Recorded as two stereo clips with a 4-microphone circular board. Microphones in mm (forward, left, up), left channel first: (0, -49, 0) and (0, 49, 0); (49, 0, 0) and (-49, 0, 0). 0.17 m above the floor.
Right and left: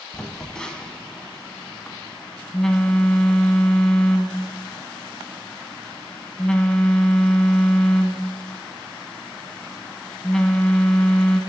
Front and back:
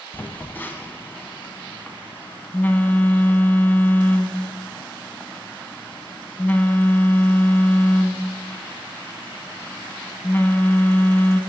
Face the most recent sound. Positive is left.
turn(degrees=-20)